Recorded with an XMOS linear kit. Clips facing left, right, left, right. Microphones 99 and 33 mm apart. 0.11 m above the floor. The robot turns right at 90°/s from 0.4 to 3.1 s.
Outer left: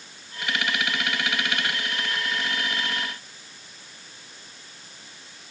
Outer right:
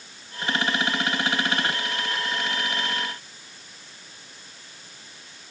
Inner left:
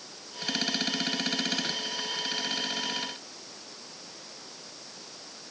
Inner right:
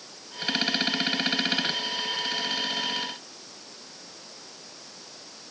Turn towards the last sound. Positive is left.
No sound to turn to.